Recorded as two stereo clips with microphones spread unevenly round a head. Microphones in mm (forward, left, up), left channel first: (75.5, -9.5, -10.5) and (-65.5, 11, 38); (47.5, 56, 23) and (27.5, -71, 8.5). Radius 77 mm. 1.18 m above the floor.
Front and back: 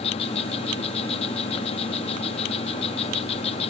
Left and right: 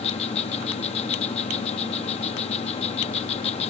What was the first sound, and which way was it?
An insect, 50° left.